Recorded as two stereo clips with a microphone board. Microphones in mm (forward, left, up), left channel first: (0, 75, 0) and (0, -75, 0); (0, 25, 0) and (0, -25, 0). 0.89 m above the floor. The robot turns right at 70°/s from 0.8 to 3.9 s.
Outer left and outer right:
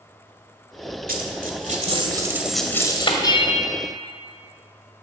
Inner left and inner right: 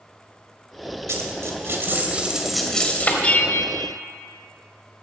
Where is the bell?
25° left, 0.8 m; by 4.0 s 75° left, 0.8 m.